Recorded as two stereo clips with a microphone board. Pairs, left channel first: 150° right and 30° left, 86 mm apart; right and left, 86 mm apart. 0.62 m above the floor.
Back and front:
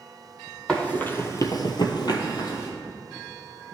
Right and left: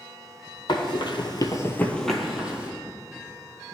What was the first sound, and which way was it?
Running footsteps, 70° right.